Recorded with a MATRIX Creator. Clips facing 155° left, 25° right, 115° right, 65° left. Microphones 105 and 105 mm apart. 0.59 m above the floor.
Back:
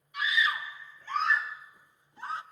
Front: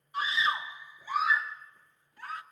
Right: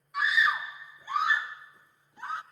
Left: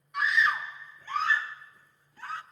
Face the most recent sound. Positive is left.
turn(degrees=-170)